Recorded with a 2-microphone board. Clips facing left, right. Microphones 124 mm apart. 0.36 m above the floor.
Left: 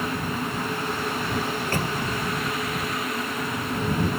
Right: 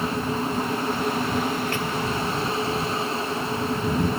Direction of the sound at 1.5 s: 40° left (ahead or behind).